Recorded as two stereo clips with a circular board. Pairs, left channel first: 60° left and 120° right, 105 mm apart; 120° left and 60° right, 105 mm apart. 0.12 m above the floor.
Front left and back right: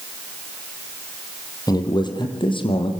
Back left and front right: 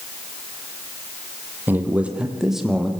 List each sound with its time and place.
1.7 s a man speaking: 10° left, 4.5 m; by 2.9 s 30° left, 5 m